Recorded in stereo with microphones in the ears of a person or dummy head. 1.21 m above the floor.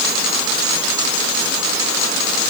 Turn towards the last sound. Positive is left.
No sound to turn to.